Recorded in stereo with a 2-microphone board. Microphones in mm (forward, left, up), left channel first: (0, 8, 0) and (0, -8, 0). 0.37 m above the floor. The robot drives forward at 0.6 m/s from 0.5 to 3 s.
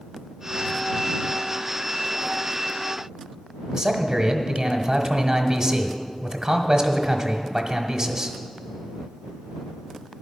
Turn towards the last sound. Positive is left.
turn(degrees=-45)  # may be behind; listen again after turning